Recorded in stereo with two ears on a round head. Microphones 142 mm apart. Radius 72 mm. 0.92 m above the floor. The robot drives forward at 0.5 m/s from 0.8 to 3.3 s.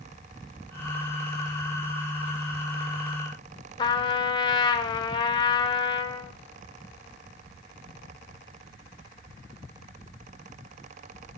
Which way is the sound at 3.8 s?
30° left (ahead or behind).